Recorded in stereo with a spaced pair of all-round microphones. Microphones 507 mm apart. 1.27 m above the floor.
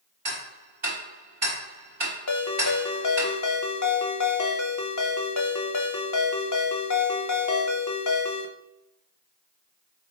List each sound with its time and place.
0.2 s ticking: 60° right (ahead or behind), 1.5 m
2.3 s a ringtone: 35° left (ahead or behind), 0.7 m